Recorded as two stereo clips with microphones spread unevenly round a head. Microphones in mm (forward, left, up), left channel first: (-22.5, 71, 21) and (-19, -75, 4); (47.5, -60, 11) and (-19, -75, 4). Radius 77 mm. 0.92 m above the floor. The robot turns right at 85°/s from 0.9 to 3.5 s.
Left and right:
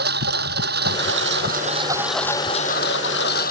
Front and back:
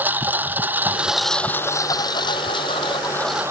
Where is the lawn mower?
105° right; by 3.5 s 115° left.